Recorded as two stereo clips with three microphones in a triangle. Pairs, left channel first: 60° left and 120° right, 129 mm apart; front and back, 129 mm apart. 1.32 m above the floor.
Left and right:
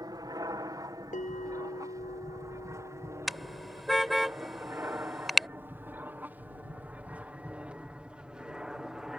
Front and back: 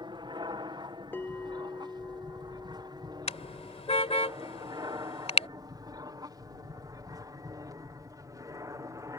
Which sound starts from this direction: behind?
An aircraft, at 0.0 s.